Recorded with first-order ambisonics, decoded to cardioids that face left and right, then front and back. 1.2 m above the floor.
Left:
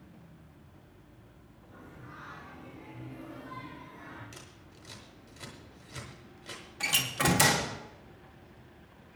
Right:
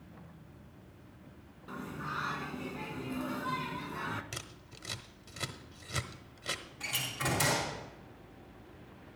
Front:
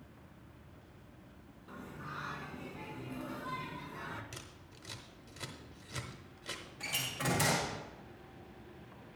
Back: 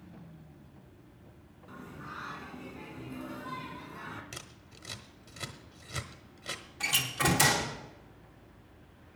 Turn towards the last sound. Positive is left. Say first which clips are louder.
# left 8 dB, back 8 dB
turn(degrees=115)